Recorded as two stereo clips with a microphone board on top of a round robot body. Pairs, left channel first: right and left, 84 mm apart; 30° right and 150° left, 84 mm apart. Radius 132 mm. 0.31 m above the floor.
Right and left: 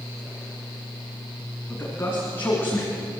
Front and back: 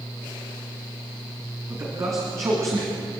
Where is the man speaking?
155° right, 4.5 m; by 3.2 s 160° right, 2.5 m.